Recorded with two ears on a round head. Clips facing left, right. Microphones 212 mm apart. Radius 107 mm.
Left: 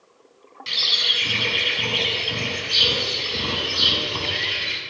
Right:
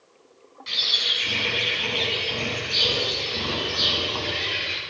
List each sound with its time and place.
0.7 s a bird: 40° left (ahead or behind), 6 m